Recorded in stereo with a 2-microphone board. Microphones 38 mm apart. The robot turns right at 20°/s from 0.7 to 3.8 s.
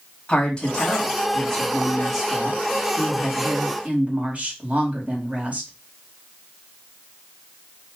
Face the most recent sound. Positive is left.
turn(degrees=-145)